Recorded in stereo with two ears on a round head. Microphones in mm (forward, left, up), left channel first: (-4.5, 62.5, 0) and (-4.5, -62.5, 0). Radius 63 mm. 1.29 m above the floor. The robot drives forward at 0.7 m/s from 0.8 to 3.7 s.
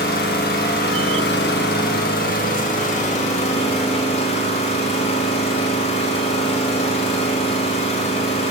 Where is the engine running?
75° left (ahead or behind), 1.7 m; by 8.5 s 45° left (ahead or behind), 2.5 m.